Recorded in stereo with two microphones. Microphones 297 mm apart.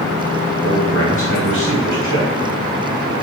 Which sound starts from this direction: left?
A man speaking, at 0.6 s.